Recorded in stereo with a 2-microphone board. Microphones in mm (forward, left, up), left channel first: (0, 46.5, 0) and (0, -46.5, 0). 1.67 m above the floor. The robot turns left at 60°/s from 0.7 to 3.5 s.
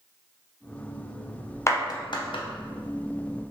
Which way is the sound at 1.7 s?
30° left (ahead or behind).